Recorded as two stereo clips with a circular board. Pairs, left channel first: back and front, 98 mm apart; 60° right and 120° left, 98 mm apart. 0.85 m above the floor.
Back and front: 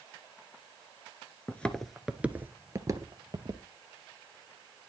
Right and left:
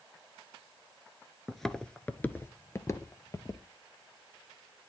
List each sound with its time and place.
1.5 s footsteps: 145° right, 0.8 m; by 3.6 s 15° right, 1.2 m